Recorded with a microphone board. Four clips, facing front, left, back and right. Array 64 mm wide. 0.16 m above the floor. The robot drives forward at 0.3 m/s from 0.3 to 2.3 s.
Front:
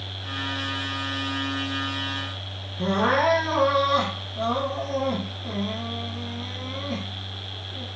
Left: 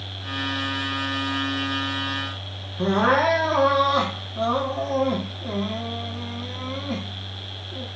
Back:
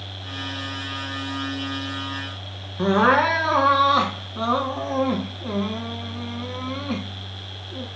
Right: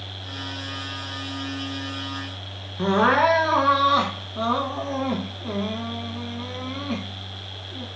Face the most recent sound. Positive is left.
turn(degrees=-155)